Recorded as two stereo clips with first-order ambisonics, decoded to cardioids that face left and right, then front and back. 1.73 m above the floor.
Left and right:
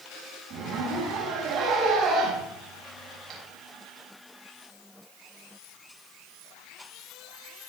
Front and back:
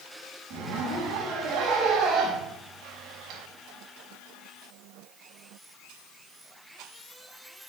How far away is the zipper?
About 4.5 m.